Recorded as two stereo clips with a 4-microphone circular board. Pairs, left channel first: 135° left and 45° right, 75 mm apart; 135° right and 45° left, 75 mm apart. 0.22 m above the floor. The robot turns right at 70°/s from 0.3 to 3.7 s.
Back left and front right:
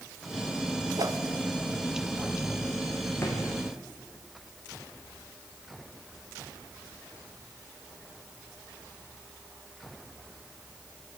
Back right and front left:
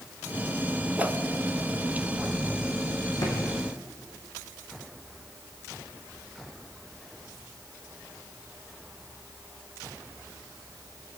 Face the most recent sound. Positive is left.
turn(degrees=-130)